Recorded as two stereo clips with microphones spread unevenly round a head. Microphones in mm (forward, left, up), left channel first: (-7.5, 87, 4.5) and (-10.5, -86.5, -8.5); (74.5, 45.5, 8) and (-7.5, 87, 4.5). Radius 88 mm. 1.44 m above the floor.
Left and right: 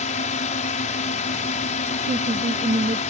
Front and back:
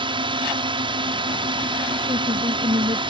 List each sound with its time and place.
0.0 s a drone: 135° left
2.1 s a woman speaking: 150° right